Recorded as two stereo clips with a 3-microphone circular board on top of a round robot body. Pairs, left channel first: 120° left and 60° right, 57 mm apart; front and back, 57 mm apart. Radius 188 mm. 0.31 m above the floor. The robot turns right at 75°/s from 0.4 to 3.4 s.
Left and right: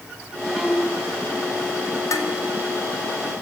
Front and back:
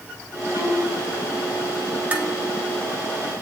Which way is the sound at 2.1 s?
120° left.